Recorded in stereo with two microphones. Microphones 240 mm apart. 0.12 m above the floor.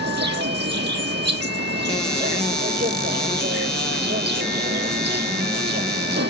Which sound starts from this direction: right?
An insect, at 0.0 s.